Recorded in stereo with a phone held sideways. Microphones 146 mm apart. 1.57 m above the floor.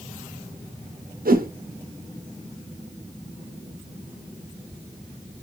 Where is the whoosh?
80° right, 0.7 m.